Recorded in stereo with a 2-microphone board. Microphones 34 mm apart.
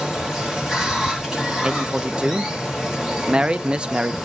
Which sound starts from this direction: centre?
Running water, at 0.0 s.